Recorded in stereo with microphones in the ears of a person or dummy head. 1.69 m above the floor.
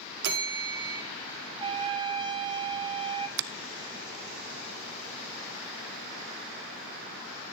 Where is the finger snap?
60° right (ahead or behind), 0.5 m.